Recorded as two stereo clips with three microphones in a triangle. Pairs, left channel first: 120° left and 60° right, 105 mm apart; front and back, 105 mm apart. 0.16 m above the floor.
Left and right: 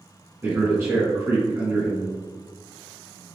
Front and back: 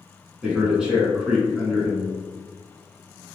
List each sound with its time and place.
0.4 s a man speaking: 105° right, 1.6 m